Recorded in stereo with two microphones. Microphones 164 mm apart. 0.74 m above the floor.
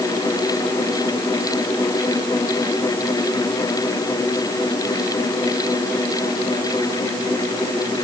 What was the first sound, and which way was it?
Only background noise.